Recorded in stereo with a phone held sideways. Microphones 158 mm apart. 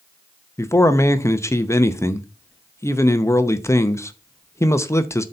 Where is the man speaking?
20° left (ahead or behind), 0.8 m.